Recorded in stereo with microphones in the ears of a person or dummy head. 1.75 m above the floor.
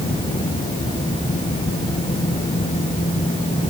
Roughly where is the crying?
No crying in this recording.